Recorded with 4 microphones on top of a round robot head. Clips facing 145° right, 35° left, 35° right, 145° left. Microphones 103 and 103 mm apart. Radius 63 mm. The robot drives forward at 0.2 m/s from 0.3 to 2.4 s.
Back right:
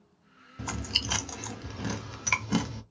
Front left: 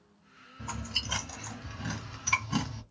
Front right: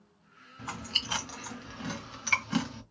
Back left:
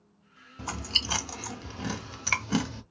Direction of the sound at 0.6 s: 155° right.